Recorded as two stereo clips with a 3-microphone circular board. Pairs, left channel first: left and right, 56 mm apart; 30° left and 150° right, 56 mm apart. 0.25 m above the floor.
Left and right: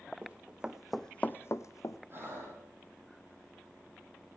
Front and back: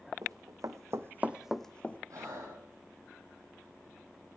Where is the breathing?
140° right, 7 m.